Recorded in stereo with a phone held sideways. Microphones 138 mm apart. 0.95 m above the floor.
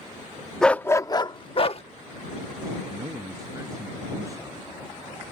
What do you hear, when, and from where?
0.6 s a dog barking: 5° left (ahead or behind); by 1.8 s 45° left (ahead or behind)
2.9 s a man speaking: 25° right (ahead or behind)